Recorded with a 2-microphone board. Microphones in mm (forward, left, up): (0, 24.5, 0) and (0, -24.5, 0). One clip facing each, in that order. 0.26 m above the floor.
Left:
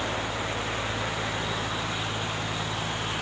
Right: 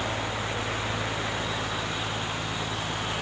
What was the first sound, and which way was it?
Only background noise.